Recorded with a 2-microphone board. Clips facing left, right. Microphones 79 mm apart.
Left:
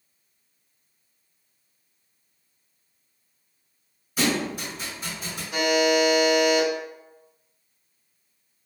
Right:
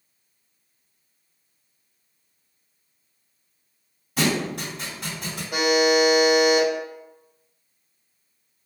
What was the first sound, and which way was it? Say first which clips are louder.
A thud: right 1 dB; 70° right (ahead or behind).